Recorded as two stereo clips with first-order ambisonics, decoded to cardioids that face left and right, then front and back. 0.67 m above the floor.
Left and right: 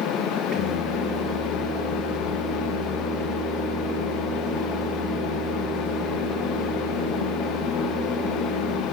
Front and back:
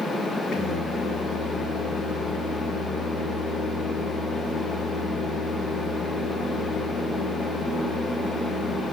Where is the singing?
50° right, 3 m.